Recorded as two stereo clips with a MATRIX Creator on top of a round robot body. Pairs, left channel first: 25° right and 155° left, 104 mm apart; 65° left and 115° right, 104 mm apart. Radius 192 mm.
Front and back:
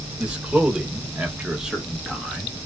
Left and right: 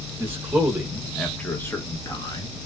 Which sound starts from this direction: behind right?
A man speaking, at 0.2 s.